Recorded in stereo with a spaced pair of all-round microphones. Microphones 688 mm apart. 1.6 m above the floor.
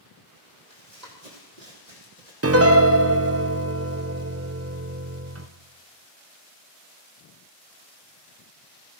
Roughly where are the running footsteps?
Right.